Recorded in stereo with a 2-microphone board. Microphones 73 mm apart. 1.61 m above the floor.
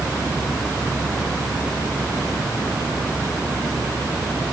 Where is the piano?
No piano in this recording.